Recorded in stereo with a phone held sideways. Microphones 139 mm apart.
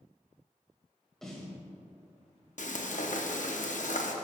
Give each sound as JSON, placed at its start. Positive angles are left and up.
{"t": 1.2, "sound": "a snare drum", "side_deg": 5, "distance_m": 1.9}
{"t": 2.6, "sound": "frying", "side_deg": 65, "distance_m": 0.8}